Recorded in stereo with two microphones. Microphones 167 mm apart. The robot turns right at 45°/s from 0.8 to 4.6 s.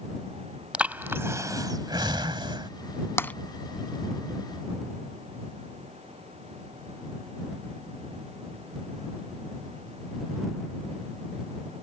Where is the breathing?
10° right (ahead or behind); by 2.7 s 30° right (ahead or behind).